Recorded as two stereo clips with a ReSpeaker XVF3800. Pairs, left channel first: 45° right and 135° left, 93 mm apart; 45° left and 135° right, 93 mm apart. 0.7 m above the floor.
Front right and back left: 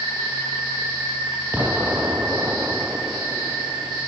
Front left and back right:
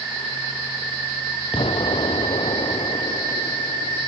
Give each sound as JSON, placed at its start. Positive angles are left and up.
{"t": 1.5, "sound": "an explosion", "azimuth_deg": 65}